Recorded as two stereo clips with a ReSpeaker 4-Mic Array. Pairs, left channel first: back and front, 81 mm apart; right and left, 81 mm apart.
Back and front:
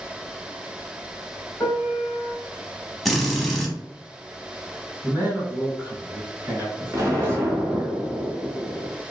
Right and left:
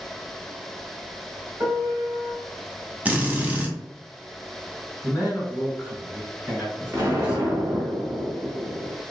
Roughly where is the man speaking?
Ahead.